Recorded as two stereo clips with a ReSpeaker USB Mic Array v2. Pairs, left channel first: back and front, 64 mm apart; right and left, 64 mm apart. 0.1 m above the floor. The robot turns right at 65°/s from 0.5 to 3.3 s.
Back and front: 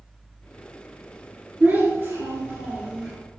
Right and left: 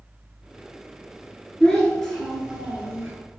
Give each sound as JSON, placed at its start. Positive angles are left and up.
{"t": 1.6, "sound": "a child speaking", "azimuth_deg": -35, "distance_m": 1.2}